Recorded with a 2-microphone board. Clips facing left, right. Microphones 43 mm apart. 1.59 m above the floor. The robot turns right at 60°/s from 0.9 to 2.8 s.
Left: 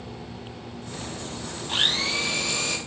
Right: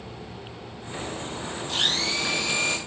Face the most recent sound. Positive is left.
turn(degrees=-150)